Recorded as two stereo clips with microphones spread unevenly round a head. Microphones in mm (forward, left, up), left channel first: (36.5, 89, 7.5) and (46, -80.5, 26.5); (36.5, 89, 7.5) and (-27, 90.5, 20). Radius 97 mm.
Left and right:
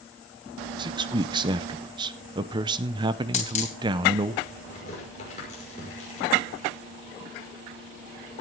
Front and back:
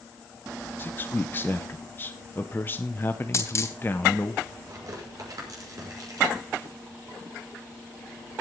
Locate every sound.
0.8 s a man speaking: 65° right, 0.7 m
3.3 s a dropped coin: 45° left, 2.5 m
4.7 s tearing paper: 155° left, 5.5 m